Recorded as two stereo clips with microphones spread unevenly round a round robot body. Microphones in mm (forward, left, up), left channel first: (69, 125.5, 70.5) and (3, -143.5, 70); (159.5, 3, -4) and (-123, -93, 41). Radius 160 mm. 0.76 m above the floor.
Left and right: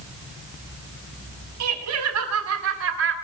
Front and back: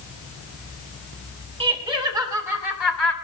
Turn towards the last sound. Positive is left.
turn(degrees=-65)